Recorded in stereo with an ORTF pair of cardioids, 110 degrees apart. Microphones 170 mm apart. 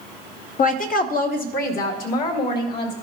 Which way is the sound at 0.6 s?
50° left.